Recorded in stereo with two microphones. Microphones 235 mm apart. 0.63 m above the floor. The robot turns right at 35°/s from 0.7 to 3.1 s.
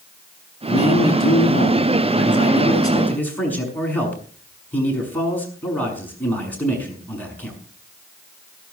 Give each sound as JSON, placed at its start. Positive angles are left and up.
{"t": 0.7, "sound": "a man speaking", "azimuth_deg": 90, "distance_m": 6.5}